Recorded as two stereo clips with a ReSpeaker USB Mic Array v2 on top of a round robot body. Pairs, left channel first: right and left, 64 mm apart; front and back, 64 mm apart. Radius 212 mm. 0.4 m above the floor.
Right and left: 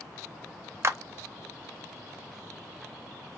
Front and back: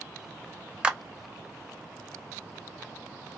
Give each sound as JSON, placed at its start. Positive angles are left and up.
{"t": 0.8, "sound": "a clap", "azimuth_deg": 110, "distance_m": 0.9}